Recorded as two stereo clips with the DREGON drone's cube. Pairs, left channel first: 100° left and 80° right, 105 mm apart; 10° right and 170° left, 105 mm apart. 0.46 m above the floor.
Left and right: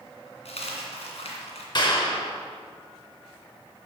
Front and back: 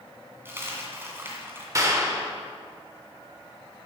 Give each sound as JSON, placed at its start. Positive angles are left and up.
{"t": 0.5, "sound": "a dropped coin", "azimuth_deg": 105, "distance_m": 1.9}
{"t": 1.8, "sound": "a clap", "azimuth_deg": 120, "distance_m": 1.2}